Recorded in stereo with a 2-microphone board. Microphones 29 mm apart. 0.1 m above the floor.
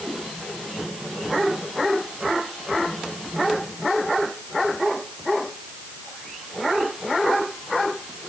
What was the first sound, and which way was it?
Only background noise.